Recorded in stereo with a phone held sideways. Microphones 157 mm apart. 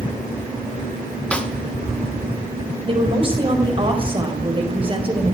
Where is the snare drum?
5° left (ahead or behind), 1.5 m.